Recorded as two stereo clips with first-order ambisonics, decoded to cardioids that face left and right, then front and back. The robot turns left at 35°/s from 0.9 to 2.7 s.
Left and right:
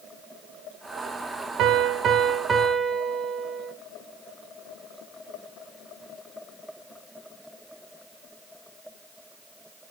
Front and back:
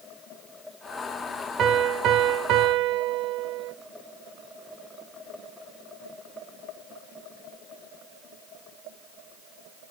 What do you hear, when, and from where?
1.6 s a piano: 130° right, 1.4 m; by 3.7 s 165° right, 1.4 m